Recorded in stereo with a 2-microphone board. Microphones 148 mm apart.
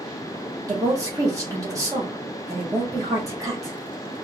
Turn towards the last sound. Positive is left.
turn(degrees=-25)  # may be behind; listen again after turning